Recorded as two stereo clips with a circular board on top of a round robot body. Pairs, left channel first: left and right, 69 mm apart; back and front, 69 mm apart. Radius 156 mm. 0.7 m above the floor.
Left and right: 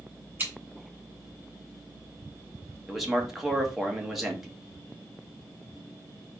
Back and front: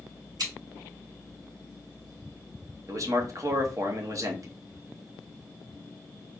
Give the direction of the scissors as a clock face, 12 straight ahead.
1 o'clock.